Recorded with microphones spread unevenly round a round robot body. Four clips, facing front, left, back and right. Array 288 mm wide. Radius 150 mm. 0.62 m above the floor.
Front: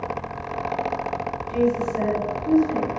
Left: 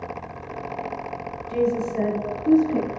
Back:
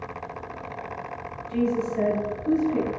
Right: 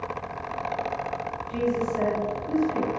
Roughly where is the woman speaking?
Left.